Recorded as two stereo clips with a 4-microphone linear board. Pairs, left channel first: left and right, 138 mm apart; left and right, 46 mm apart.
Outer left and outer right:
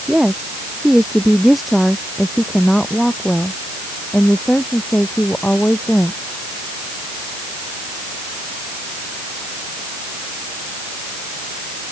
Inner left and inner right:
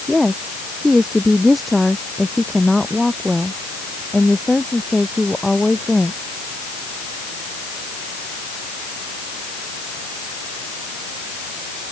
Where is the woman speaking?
5° right (ahead or behind); by 6.2 s 10° left (ahead or behind).